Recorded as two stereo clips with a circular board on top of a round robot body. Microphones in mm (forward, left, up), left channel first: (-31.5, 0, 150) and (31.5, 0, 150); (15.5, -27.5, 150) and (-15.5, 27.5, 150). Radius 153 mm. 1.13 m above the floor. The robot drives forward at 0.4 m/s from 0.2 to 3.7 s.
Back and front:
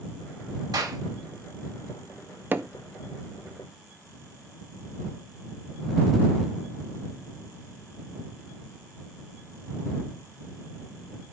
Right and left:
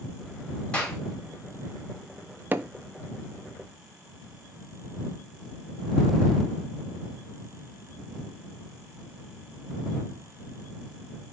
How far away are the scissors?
No scissors in this recording.